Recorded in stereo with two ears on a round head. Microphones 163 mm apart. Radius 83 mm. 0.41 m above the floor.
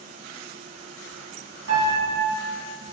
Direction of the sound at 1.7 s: 70° right (ahead or behind).